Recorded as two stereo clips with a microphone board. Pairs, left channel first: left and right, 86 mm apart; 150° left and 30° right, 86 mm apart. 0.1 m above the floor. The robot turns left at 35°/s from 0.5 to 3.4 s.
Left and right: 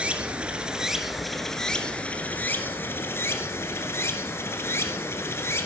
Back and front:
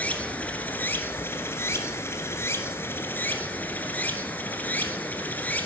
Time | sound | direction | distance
0.0 | running water | 155° right | 0.9 m